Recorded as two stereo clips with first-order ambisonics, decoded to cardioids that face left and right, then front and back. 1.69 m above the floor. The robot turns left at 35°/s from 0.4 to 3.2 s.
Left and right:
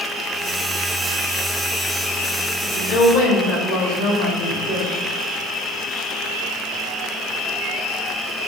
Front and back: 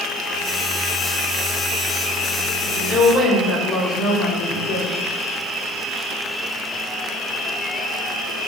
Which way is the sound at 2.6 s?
100° left.